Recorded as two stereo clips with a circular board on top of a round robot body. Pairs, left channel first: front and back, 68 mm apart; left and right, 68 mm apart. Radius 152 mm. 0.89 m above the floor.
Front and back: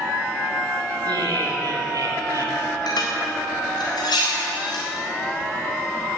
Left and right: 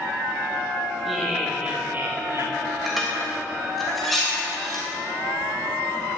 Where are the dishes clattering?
Straight ahead, 3.5 m.